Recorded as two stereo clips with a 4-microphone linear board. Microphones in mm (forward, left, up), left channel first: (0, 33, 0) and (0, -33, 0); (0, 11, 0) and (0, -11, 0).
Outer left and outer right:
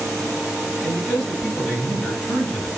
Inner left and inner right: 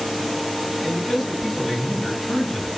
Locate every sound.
0.8 s a man speaking: 5° left (ahead or behind), 1.4 m